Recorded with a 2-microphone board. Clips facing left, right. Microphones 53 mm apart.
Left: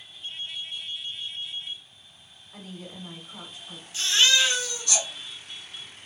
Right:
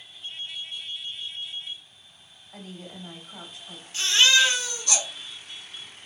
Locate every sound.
2.5 s a woman speaking: 55° right (ahead or behind), 1.7 m
3.9 s a baby crying: 60° right (ahead or behind), 1.9 m